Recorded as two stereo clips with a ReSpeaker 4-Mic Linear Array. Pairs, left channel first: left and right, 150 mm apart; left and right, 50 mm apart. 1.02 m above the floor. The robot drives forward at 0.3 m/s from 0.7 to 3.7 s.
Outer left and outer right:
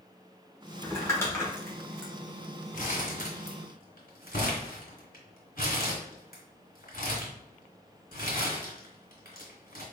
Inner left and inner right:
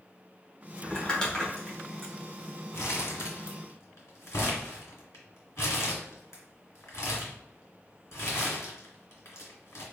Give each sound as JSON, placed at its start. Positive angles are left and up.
{"t": 0.8, "sound": "crumpling", "side_deg": 20, "distance_m": 1.4}
{"t": 2.7, "sound": "crumpling", "side_deg": 65, "distance_m": 1.8}